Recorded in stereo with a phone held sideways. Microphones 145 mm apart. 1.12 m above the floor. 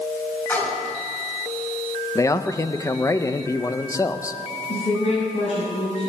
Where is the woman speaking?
45° left (ahead or behind), 6.5 m.